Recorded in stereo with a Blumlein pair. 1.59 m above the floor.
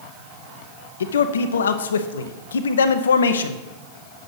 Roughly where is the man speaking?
Ahead left.